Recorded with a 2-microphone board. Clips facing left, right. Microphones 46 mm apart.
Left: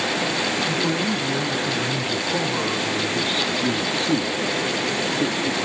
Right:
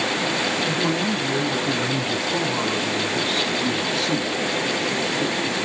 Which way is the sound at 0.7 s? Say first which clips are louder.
Even; 15° right (ahead or behind).